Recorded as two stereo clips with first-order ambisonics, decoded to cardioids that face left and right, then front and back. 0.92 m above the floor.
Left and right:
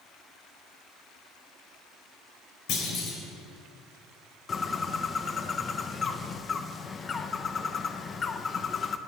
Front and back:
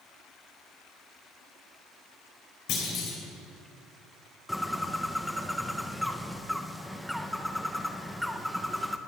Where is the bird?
85° left, 0.5 m.